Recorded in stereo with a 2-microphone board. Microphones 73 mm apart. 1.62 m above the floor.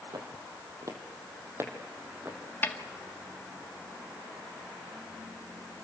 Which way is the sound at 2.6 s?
25° left (ahead or behind).